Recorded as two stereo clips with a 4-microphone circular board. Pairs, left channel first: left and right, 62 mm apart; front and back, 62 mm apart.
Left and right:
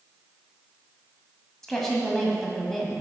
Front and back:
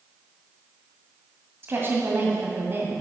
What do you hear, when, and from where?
1.6 s a woman speaking: 175° left, 1.6 m